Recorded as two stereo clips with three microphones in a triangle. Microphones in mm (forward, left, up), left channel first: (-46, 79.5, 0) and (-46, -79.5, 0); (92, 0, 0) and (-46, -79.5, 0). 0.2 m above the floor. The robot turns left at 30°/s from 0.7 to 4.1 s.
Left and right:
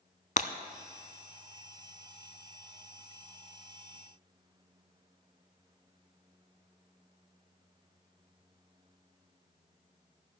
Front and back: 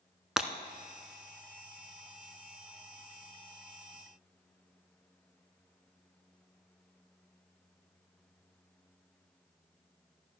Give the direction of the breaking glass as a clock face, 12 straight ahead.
8 o'clock.